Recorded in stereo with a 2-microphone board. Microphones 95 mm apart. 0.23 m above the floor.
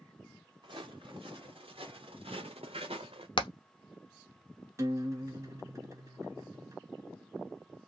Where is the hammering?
60° left (ahead or behind), 0.6 m.